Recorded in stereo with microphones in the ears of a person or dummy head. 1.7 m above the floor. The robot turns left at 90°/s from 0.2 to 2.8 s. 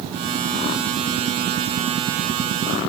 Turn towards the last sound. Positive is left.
No sound to turn to.